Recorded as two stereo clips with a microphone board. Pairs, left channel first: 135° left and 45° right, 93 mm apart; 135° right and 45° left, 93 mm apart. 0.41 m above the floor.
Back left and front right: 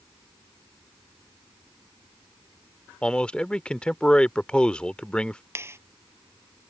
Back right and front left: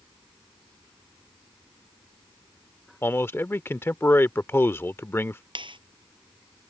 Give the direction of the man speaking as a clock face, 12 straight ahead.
5 o'clock.